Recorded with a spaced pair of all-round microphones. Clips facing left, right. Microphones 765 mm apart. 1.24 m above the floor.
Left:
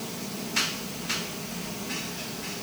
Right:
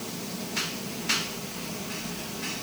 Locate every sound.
Only background noise.